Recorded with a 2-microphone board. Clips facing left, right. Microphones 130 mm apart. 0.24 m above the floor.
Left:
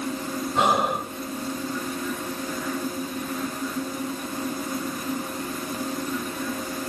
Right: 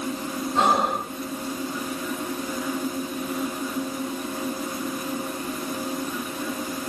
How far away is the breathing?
About 1.2 m.